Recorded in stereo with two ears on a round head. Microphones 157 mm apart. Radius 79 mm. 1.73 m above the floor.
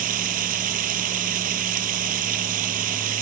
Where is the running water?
45° right (ahead or behind).